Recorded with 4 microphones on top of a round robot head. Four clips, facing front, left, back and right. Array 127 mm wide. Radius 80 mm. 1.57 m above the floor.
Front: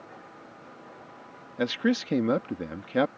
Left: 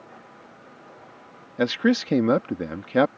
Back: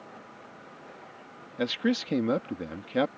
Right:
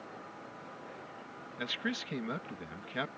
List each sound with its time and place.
1.6 s a man speaking: 90° left